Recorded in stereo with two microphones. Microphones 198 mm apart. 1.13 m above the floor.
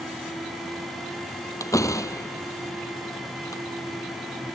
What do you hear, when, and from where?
1.6 s a door slam: 15° left (ahead or behind)